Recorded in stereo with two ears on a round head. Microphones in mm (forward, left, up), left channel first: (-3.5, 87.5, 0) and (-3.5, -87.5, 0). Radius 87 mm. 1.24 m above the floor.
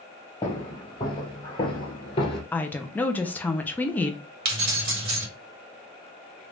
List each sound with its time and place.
0.4 s footsteps: 20° left (ahead or behind), 2 m; by 2.4 s 30° left (ahead or behind), 1.4 m
2.5 s a woman speaking: 10° left (ahead or behind), 0.5 m
4.5 s keys jangling: 55° right (ahead or behind), 1.9 m